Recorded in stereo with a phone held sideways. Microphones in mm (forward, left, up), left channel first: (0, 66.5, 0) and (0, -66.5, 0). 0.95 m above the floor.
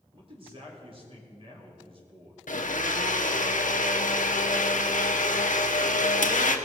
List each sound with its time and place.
0.1 s a man speaking: 45° right (ahead or behind), 2.5 m
2.5 s a blender: 75° left (ahead or behind), 0.9 m